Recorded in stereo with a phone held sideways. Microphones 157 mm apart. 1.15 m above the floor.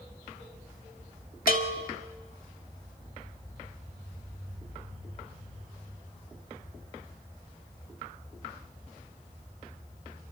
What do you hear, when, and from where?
1.5 s a bell: 65° left (ahead or behind), 2.0 m